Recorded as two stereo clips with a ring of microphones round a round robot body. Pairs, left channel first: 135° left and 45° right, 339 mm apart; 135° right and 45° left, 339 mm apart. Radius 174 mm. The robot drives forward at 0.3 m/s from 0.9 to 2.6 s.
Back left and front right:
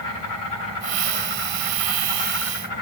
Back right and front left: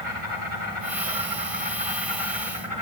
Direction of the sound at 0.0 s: 110° left.